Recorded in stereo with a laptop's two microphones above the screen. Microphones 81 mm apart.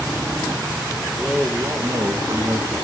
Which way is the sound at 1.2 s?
Centre (ahead or behind).